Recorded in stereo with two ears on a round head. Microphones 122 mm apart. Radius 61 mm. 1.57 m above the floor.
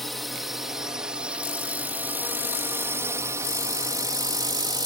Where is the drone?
Centre (ahead or behind); by 4.9 s 30° right (ahead or behind).